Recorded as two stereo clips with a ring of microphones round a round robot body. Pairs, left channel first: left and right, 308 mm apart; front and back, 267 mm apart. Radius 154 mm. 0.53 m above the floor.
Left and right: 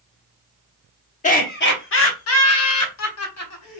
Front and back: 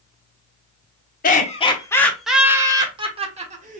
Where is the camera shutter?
No camera shutter in this recording.